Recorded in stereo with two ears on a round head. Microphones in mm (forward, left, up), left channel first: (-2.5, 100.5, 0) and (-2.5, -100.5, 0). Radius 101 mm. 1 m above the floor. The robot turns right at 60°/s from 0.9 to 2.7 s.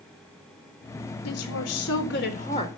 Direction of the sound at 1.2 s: 75° left.